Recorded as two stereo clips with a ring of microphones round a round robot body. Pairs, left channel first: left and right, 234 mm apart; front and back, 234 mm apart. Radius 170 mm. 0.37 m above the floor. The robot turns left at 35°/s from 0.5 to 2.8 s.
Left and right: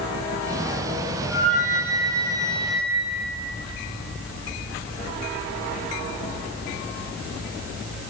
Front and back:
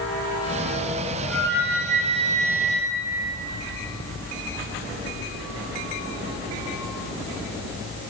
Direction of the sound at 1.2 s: 145° left.